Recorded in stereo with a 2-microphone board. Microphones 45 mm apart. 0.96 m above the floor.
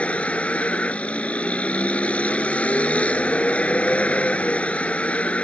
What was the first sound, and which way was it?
A vehicle, 25° left (ahead or behind).